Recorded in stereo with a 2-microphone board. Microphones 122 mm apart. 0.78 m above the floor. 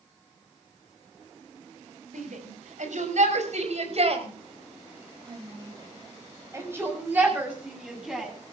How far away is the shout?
About 6 m.